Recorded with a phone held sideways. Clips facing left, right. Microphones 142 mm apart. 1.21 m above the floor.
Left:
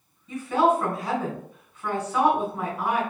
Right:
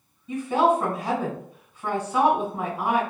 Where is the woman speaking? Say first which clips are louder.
Right 1 dB; 30° right (ahead or behind), 1.8 m.